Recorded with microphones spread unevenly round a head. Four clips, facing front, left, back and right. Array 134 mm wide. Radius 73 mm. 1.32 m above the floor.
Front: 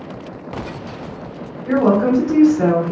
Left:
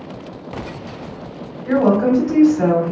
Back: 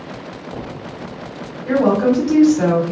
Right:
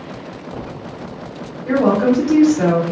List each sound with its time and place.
1.6 s a woman speaking: 150° right, 1.7 m